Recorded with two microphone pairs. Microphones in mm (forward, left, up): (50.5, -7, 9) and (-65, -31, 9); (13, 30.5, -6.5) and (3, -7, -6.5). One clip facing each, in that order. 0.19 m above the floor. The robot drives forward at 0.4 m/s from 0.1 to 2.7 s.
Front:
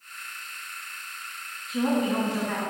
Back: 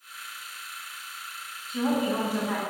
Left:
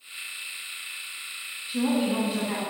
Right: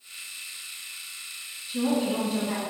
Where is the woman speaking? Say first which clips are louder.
Front 1 dB, left 1 dB; 95° left, 1.0 m; by 2.6 s 140° left, 1.1 m.